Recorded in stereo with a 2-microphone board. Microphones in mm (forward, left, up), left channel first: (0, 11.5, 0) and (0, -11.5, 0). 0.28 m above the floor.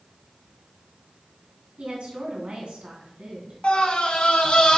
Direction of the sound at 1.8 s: 65° right (ahead or behind).